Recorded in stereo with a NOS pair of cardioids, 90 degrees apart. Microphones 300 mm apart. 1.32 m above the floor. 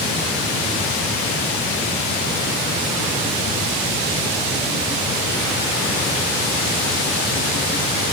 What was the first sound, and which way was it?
Only background noise.